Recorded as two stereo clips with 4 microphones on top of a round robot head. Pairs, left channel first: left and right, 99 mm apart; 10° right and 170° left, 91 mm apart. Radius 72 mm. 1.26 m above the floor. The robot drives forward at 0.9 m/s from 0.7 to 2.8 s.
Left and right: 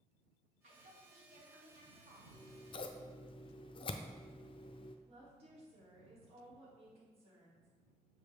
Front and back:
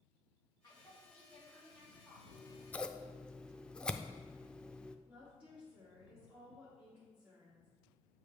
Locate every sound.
0.6 s a woman speaking: 70° right, 2 m; by 2.2 s 110° right, 2 m
2.3 s scissors: 30° left, 0.8 m; by 5.0 s 70° left, 0.5 m
5.1 s a woman speaking: 110° right, 2.5 m